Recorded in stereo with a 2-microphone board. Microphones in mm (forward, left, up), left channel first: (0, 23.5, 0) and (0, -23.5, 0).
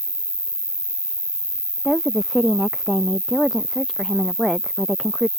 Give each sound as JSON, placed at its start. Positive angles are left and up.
{"t": 0.0, "sound": "an insect", "side_deg": -45}
{"t": 1.9, "sound": "a woman speaking", "side_deg": 0}